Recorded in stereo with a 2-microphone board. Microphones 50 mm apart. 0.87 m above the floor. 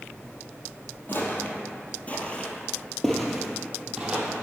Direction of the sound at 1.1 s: 50° left (ahead or behind).